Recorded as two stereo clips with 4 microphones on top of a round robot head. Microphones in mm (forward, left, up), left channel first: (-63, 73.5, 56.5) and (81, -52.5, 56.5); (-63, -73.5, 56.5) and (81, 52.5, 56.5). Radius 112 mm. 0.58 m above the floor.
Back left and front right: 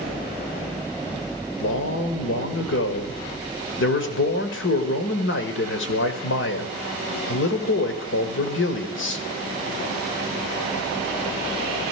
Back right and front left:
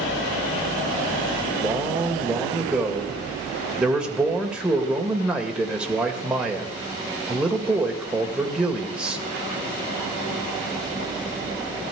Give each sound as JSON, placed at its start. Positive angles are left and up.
{"t": 1.6, "sound": "a man speaking", "azimuth_deg": 125, "distance_m": 2.0}